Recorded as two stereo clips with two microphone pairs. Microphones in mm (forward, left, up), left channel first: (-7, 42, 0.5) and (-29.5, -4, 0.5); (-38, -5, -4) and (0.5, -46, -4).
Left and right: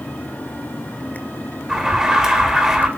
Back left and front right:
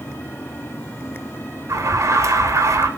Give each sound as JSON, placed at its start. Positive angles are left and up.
{"t": 1.7, "sound": "an alarm", "azimuth_deg": -40, "distance_m": 3.0}